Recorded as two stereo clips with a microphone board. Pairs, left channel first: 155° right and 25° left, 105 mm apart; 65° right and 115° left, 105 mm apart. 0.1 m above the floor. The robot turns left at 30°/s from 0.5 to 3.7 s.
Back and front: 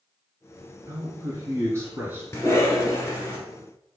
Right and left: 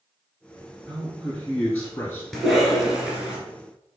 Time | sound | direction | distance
0.9 | a man speaking | 25° left | 1.6 m
2.3 | a cough | 150° right | 1.3 m